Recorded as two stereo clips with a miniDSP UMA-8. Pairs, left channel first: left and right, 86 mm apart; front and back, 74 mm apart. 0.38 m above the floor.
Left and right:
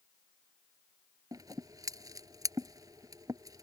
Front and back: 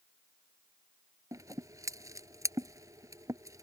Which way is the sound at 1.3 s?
135° right.